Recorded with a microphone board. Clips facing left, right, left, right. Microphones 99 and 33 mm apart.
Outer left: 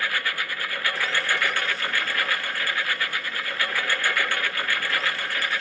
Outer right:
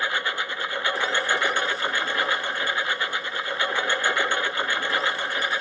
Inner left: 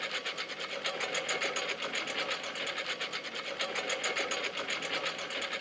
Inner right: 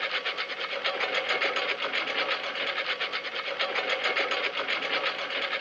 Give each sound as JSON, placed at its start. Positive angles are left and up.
{"t": 0.0, "sound": "a lawn mower", "side_deg": -25}